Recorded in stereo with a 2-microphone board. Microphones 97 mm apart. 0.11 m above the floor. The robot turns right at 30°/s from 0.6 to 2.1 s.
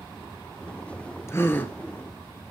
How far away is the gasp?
About 1.2 m.